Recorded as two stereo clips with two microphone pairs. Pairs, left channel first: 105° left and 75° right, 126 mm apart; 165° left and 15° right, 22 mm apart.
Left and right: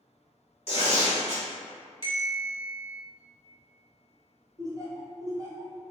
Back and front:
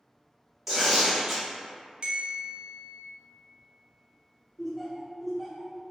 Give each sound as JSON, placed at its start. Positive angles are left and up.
{"t": 0.7, "sound": "tearing paper", "azimuth_deg": 65, "distance_m": 0.9}
{"t": 2.0, "sound": "a bell", "azimuth_deg": -50, "distance_m": 0.7}
{"t": 4.6, "sound": "laughter", "azimuth_deg": -110, "distance_m": 0.7}